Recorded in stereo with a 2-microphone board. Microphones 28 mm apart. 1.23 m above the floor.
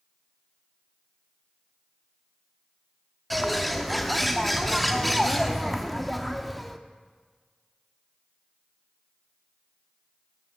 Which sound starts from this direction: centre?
A bird, at 3.3 s.